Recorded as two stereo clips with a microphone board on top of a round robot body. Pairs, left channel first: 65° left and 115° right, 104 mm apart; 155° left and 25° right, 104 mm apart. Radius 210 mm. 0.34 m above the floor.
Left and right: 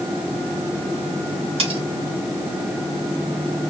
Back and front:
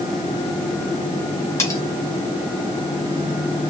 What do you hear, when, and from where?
1.6 s cutlery clinking: 140° right, 2.5 m